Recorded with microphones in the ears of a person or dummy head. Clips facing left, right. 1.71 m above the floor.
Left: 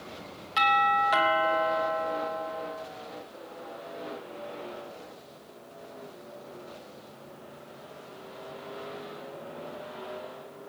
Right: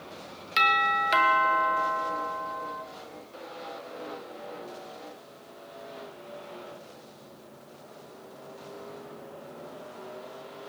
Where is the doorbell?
35° right (ahead or behind), 1.8 m.